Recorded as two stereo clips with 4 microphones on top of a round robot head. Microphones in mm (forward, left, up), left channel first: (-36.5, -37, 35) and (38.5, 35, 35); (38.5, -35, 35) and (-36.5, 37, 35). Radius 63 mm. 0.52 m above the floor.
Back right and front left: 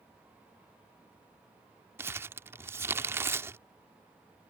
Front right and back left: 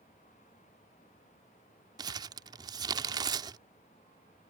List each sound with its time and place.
2.0 s crumpling: 105° left